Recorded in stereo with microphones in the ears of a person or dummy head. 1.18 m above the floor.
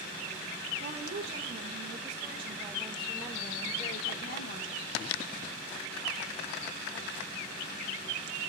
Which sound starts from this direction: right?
A woman speaking, at 0.8 s.